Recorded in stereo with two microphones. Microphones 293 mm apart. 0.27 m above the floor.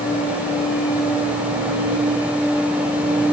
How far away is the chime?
No chime in this recording.